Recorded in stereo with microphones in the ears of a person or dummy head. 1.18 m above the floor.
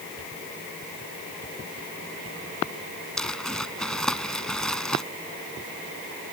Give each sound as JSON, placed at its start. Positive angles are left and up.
{"t": 3.2, "sound": "crumpling", "side_deg": 0}